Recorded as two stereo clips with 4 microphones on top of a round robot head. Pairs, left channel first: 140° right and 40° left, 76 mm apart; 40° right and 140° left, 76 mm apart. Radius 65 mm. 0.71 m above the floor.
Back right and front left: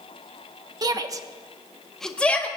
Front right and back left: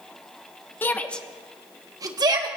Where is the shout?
20° left, 1.5 m; by 2.5 s 150° left, 1.8 m.